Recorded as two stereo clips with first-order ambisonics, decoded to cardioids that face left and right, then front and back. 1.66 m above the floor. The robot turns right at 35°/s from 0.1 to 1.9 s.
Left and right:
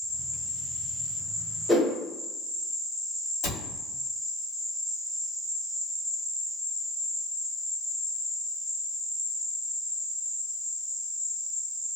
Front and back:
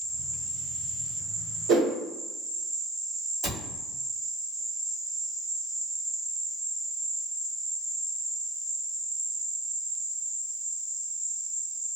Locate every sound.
0.0 s an insect: 10° right, 1.5 m; by 12.0 s 50° left, 1.5 m
1.7 s a whoosh: straight behind, 0.7 m; by 1.9 s 175° right, 0.7 m
3.4 s a cupboard door: 130° left, 1.3 m